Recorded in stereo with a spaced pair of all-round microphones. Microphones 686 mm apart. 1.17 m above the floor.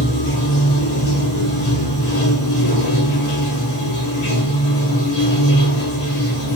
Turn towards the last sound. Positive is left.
turn(degrees=85)